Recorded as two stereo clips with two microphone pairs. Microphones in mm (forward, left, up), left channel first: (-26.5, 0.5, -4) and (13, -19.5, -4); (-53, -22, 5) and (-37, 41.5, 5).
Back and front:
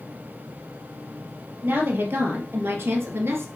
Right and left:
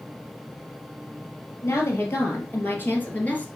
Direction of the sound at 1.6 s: 60° right.